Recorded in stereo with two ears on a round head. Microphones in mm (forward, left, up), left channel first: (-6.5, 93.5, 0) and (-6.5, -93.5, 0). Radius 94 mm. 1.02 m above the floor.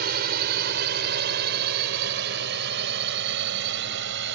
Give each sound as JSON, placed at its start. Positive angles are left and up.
{"t": 0.0, "sound": "a drone", "side_deg": -55}